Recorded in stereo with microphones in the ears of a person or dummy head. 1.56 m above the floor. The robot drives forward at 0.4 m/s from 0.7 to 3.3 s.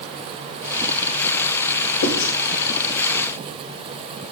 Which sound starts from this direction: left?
Writing, at 2.0 s.